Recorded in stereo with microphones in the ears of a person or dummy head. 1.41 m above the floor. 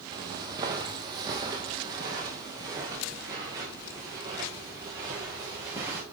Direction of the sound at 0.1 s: 25° right (ahead or behind).